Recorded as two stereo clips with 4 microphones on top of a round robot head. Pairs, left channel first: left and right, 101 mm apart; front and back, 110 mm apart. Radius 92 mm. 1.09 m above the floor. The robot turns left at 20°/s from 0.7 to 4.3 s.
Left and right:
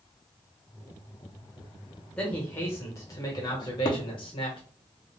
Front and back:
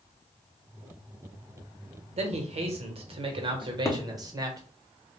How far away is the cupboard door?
About 0.7 m.